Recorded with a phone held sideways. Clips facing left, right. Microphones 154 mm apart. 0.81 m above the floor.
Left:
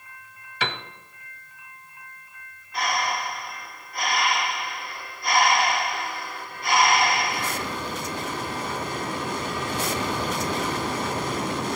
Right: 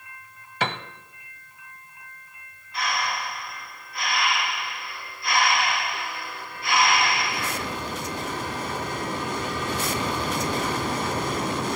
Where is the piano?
45° right (ahead or behind), 0.9 m.